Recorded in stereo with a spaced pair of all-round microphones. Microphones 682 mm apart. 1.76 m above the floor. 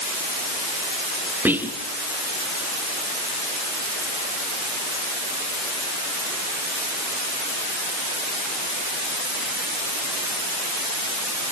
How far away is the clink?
No clink in this recording.